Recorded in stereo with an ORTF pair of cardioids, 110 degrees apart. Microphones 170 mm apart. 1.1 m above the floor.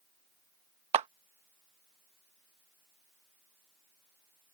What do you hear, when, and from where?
0.9 s a clap: 40° right